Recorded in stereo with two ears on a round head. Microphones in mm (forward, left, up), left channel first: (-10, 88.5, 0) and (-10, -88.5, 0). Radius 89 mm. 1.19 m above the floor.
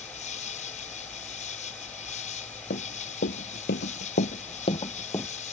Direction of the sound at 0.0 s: 35° left (ahead or behind).